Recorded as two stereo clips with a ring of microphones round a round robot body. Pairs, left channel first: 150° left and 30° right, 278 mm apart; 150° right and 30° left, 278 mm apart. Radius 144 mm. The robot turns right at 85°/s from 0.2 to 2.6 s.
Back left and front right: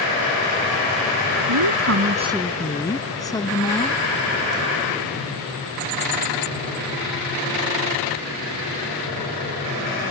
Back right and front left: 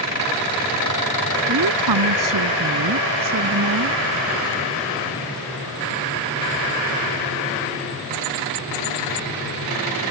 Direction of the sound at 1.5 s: 25° right.